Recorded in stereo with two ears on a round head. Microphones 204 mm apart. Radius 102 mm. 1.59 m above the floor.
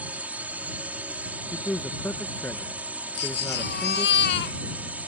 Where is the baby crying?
50° left (ahead or behind).